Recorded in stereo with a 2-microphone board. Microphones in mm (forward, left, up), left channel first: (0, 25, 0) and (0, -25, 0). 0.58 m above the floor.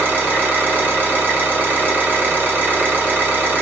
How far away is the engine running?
About 1.2 m.